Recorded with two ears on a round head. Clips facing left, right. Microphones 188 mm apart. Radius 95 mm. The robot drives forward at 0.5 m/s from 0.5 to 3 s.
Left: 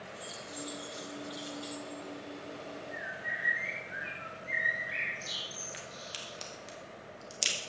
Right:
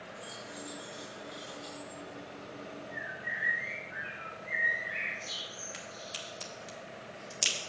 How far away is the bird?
About 3 m.